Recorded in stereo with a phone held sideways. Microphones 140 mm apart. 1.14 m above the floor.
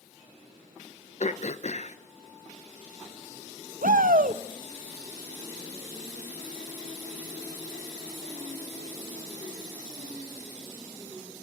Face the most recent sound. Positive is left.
turn(degrees=-85)